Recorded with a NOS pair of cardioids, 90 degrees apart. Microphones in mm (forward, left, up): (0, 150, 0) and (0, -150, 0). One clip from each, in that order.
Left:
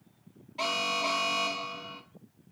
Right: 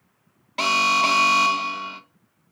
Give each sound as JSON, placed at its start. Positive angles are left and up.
{"t": 0.6, "sound": "an alarm", "azimuth_deg": -70, "distance_m": 0.5}